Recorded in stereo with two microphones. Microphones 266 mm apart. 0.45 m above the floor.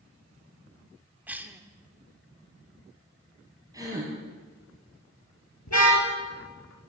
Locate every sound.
1.3 s a cough: 5° right (ahead or behind), 0.9 m
3.7 s a gasp: 10° right (ahead or behind), 4 m
5.7 s a car horn: 80° left, 3.5 m